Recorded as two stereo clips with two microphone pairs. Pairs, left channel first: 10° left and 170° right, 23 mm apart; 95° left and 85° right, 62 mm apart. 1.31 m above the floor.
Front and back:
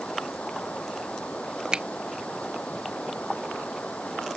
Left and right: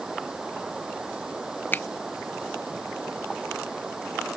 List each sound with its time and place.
0.0 s running water: 5° right
1.7 s a finger snap: 150° left